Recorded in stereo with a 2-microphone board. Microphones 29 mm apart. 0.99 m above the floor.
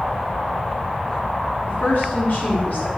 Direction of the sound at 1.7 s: 75° left (ahead or behind).